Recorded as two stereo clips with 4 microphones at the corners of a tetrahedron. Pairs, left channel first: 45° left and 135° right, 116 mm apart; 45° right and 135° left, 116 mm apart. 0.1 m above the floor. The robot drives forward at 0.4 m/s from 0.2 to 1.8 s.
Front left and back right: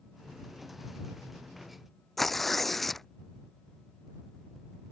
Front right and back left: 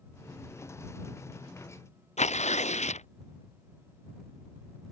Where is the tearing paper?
40° right.